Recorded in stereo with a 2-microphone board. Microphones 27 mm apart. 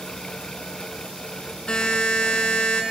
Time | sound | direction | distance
1.7 | a buzzer | 40° left (ahead or behind) | 1.3 m